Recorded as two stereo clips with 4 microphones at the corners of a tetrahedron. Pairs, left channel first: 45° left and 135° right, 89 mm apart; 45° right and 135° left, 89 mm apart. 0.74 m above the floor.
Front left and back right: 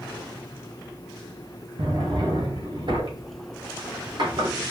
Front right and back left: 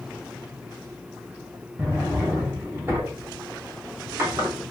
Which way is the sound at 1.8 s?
160° right.